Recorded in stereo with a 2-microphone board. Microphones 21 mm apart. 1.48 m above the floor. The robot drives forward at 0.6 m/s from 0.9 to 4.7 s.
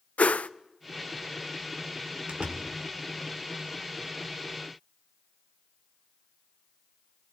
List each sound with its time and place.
0.2 s a whoosh: 85° left, 0.7 m
2.3 s a door slam: 55° right (ahead or behind), 4 m; by 2.7 s 50° right (ahead or behind), 4 m